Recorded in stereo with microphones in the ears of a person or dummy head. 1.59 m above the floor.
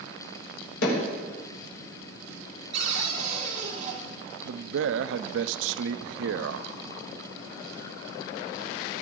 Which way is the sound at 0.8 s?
80° left.